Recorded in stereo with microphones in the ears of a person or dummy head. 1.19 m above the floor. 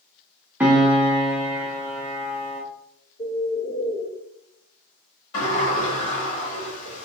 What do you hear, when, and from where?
0.6 s a piano: 5° right (ahead or behind), 0.9 m
3.2 s a bird: 15° left (ahead or behind), 0.5 m
5.3 s a sliding door: 75° left (ahead or behind), 1.9 m